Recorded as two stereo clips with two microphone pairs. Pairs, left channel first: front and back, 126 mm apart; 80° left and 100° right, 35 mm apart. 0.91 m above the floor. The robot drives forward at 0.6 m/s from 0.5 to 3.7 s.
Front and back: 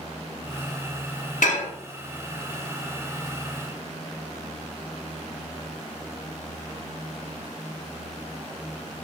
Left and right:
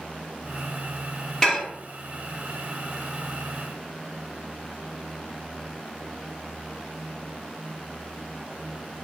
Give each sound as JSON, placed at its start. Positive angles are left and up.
{"t": 1.4, "sound": "dishes clattering", "azimuth_deg": 10, "distance_m": 0.9}